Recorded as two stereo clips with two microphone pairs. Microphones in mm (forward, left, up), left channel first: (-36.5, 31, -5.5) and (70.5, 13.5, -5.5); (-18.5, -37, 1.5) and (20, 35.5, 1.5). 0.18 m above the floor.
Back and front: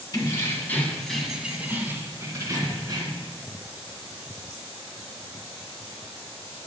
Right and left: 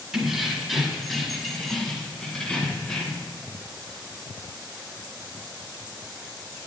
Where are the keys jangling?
140° left, 1.2 m; by 3.3 s 40° right, 1.7 m.